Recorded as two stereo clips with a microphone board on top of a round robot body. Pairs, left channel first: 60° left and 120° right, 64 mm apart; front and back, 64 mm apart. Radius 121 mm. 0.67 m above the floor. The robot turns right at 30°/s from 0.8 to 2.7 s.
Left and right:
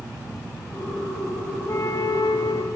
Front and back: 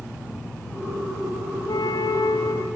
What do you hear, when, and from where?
1.7 s a flute: 10° left, 1.5 m; by 2.6 s 40° left, 1.5 m